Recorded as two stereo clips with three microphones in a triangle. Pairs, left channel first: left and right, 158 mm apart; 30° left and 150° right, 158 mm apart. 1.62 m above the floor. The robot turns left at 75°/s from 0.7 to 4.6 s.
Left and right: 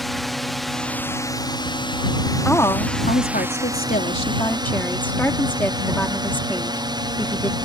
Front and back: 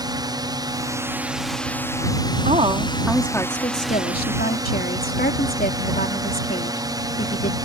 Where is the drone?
Straight behind; by 7.6 s 115° right.